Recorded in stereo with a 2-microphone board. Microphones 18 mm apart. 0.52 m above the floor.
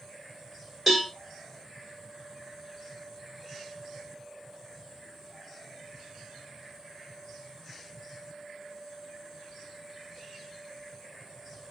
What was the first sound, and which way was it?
A cowbell, 5° right (ahead or behind).